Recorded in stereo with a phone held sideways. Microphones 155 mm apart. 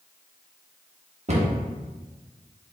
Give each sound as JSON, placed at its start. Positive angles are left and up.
{"t": 1.3, "sound": "a cupboard door", "side_deg": -45, "distance_m": 1.0}